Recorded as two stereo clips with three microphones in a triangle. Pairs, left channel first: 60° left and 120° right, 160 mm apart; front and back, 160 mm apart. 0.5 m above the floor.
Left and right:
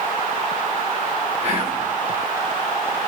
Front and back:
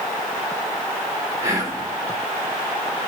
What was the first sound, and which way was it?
Whispering, 120° right.